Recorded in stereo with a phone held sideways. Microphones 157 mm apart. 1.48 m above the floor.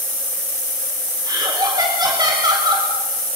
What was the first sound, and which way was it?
Laughter, 25° right (ahead or behind).